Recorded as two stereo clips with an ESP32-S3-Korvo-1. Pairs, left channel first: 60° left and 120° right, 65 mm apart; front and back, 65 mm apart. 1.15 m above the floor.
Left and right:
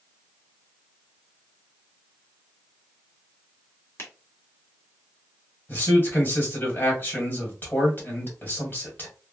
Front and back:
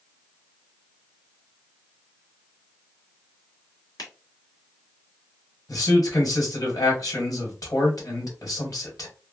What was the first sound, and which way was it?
A finger snap, 10° left.